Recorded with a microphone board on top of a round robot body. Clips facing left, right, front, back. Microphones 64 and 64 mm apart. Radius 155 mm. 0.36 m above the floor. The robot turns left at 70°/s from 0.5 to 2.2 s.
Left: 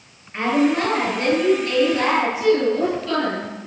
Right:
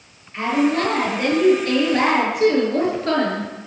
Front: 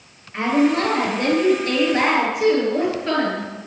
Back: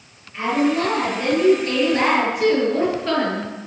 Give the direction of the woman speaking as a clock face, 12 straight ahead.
11 o'clock.